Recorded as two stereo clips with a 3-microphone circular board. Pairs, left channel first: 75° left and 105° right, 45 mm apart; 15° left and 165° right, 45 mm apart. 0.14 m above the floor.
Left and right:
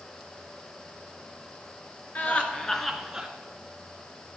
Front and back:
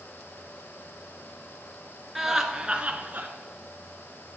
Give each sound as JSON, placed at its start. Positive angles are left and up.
{"t": 2.1, "sound": "laughter", "azimuth_deg": 110, "distance_m": 1.8}